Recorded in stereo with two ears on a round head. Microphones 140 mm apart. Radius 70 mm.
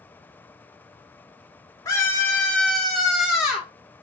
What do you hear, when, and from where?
1.9 s a scream: 20° left (ahead or behind), 0.9 m; by 3.7 s 5° right (ahead or behind), 1.3 m